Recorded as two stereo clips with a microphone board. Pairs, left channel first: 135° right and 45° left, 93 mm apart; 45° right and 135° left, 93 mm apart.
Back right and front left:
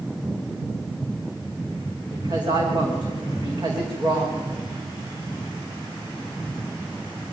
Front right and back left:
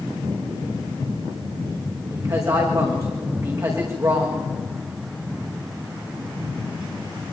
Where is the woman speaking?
85° left, 7 m.